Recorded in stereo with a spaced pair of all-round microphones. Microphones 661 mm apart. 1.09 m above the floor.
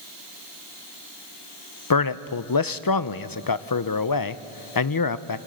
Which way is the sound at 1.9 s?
35° left (ahead or behind).